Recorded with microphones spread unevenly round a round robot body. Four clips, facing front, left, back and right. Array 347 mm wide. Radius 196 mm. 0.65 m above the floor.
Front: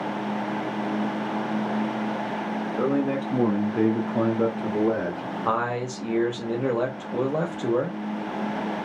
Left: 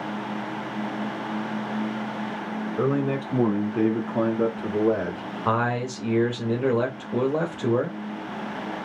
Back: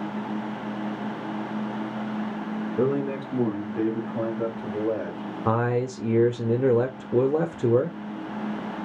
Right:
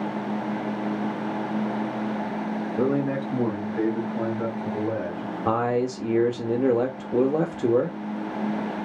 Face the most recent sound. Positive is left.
turn(degrees=-160)